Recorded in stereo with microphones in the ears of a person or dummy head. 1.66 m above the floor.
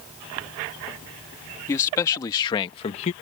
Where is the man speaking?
15° left (ahead or behind); by 3.1 s 40° left (ahead or behind).